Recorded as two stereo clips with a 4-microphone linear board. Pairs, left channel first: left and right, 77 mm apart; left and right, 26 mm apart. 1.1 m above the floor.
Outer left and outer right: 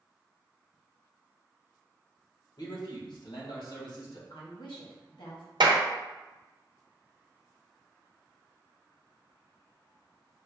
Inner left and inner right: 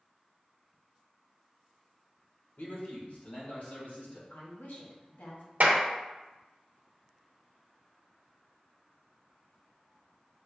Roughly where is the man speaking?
Left.